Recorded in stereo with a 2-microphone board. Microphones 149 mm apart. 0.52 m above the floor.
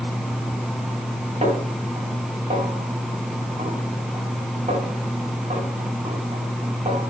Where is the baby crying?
I don't hear a baby crying.